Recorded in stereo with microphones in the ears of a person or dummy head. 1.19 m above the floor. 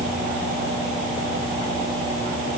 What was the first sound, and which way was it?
Only background noise.